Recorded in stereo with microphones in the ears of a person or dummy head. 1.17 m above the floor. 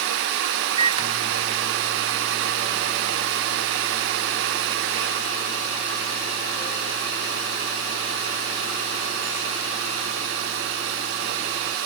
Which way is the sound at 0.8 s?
35° right (ahead or behind).